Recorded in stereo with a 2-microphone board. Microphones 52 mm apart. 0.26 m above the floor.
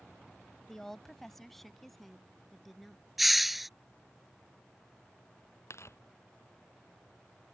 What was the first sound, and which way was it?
A woman speaking, 10° left (ahead or behind).